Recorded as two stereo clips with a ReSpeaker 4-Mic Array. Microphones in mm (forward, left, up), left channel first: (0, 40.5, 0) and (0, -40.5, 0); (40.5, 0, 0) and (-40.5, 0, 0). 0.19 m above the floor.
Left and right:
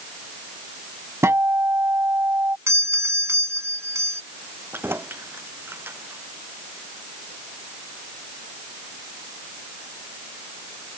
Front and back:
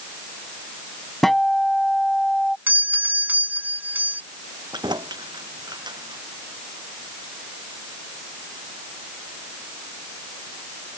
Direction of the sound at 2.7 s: 125° right.